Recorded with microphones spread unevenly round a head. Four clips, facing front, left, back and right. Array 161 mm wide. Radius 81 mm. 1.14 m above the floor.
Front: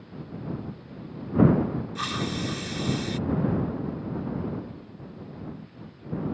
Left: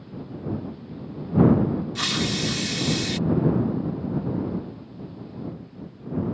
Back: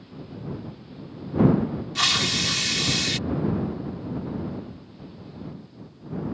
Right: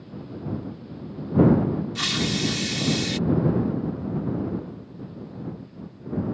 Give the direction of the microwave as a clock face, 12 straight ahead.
No microwave in this recording.